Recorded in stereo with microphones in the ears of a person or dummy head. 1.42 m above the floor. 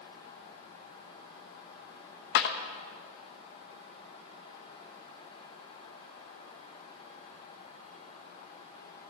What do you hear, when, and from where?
2.4 s a clap: 60° left (ahead or behind), 0.8 m